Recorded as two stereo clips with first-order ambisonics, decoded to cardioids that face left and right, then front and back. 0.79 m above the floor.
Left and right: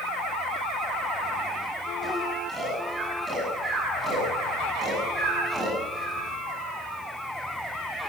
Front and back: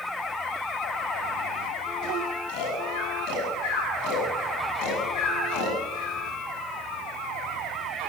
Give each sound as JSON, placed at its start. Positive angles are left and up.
{"t": 2.5, "sound": "snoring", "azimuth_deg": -10, "distance_m": 7.0}